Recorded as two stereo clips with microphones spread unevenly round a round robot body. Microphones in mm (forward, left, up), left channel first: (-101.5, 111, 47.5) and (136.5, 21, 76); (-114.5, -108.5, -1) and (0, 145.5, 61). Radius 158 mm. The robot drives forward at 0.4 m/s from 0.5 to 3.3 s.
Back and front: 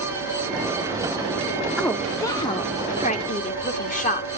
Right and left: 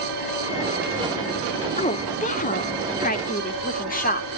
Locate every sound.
0.0 s an engine running: 125° right, 10 m; by 4.4 s 130° right, 10.5 m
1.8 s a woman speaking: 125° right, 0.9 m; by 4.3 s 155° right, 1.3 m